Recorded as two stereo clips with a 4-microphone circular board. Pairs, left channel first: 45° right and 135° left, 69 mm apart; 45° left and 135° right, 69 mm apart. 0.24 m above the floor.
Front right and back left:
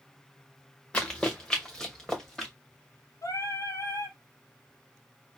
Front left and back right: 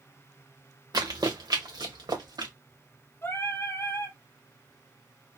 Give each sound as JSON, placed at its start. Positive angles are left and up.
{"t": 0.9, "sound": "running footsteps", "azimuth_deg": -120, "distance_m": 1.5}
{"t": 3.2, "sound": "singing", "azimuth_deg": -5, "distance_m": 1.2}